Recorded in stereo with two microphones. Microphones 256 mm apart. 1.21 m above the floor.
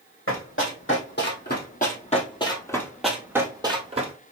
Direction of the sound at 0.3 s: 55° left (ahead or behind).